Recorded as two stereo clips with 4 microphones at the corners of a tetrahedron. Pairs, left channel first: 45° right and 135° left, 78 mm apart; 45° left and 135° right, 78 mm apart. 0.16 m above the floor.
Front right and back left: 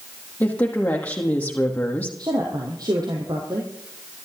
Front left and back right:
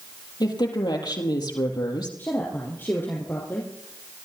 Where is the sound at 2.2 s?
105° left, 4 m.